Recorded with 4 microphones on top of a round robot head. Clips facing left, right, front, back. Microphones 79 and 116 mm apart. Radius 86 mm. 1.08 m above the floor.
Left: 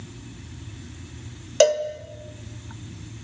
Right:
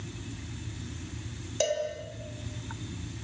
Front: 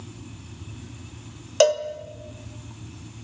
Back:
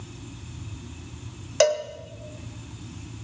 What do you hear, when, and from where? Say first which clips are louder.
1.6 s a cowbell: left 11 dB, front 2 dB; 75° left, 1.6 m